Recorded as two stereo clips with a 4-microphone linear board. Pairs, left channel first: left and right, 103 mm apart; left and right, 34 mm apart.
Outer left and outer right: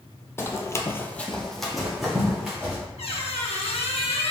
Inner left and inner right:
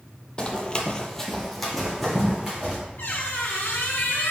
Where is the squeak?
75° left (ahead or behind), 0.7 m.